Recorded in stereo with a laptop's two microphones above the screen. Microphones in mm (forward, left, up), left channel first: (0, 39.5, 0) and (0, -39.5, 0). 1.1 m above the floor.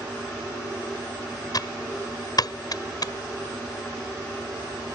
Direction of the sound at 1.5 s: 55° left (ahead or behind).